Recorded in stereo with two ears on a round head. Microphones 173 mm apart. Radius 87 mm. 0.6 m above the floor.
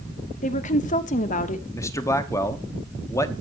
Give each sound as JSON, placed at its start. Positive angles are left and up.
{"t": 0.4, "sound": "a woman speaking", "side_deg": 40, "distance_m": 1.1}
{"t": 1.7, "sound": "a man speaking", "side_deg": 15, "distance_m": 1.1}